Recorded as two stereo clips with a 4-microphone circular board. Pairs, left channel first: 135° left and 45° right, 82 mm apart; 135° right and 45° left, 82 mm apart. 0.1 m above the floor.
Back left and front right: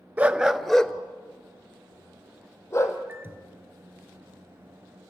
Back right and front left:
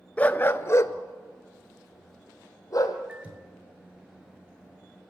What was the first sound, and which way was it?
A dog barking, 90° right.